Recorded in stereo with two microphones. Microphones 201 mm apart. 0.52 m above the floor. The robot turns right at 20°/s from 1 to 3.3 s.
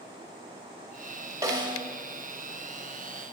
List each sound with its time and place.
1.4 s a snare drum: 15° right (ahead or behind), 0.7 m; by 1.8 s 25° right (ahead or behind), 0.7 m